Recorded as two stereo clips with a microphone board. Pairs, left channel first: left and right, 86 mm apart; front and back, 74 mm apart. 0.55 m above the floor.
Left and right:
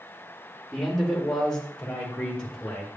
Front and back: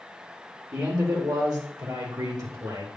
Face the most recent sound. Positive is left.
turn(degrees=170)